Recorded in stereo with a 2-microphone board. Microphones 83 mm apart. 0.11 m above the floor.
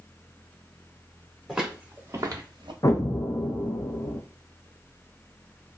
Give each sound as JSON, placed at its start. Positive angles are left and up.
{"t": 1.5, "sound": "footsteps", "side_deg": -5, "distance_m": 1.8}
{"t": 2.8, "sound": "an explosion", "side_deg": 45, "distance_m": 0.6}